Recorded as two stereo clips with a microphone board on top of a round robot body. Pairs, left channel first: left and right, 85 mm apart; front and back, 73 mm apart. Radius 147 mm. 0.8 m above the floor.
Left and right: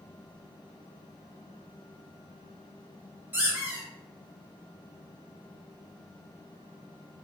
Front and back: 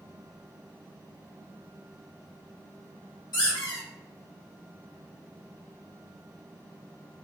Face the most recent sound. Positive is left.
turn(degrees=-20)